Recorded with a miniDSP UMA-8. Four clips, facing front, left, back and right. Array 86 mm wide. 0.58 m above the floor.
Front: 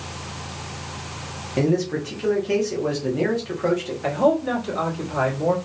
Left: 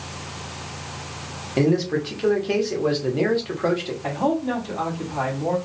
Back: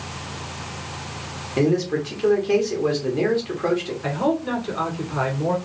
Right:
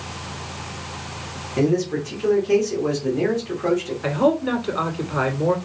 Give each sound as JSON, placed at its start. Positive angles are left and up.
{"t": 1.6, "sound": "a man speaking", "azimuth_deg": 105, "distance_m": 1.0}
{"t": 4.0, "sound": "a man speaking", "azimuth_deg": -85, "distance_m": 2.0}